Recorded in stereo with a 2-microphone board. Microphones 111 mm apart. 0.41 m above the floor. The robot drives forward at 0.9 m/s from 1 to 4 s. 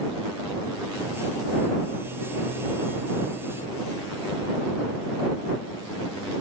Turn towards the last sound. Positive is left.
No sound to turn to.